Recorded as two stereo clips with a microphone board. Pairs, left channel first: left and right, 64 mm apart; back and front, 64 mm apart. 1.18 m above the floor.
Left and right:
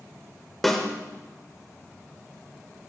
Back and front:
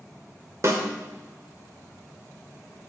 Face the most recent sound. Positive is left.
turn(degrees=5)